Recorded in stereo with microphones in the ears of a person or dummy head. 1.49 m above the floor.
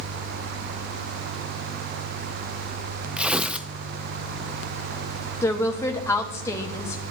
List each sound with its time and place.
3.2 s tearing paper: 5° right (ahead or behind), 0.5 m
5.4 s a woman speaking: 20° left (ahead or behind), 1.2 m